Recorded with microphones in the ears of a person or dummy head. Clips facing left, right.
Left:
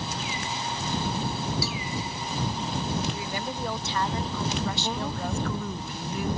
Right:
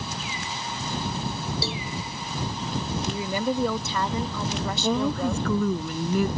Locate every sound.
1.6 s a cowbell: 25° right (ahead or behind)
3.1 s a woman speaking: 75° right (ahead or behind)
4.8 s a woman speaking: 65° right (ahead or behind)